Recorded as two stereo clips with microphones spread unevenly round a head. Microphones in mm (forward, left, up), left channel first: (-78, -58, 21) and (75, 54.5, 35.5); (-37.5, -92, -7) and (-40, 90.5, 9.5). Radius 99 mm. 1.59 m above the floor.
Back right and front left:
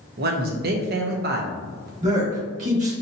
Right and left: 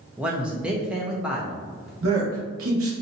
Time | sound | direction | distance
0.2 | a man speaking | 10° left | 0.6 m
2.0 | a man speaking | 90° left | 1.4 m